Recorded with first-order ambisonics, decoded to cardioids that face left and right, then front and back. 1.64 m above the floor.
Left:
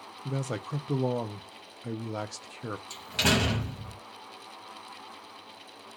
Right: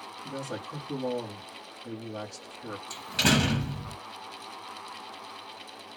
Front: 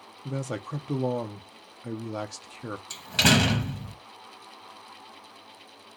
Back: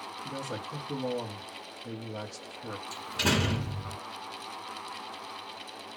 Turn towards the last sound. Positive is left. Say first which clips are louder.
# right 1 dB, front 7 dB
turn(degrees=0)